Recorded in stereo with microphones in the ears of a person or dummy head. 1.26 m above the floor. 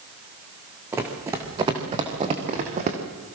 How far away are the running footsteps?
About 4.5 m.